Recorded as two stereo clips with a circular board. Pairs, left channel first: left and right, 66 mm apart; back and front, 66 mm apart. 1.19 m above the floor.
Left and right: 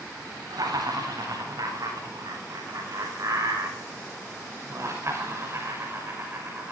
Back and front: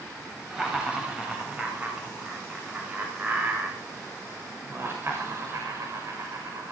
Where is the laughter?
75° right, 8.5 m; by 6.7 s 35° right, 6 m.